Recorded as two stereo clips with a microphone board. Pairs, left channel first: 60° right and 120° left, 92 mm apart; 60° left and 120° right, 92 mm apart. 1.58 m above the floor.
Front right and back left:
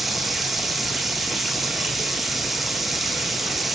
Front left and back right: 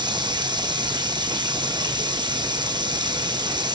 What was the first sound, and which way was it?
Running water, 150° right.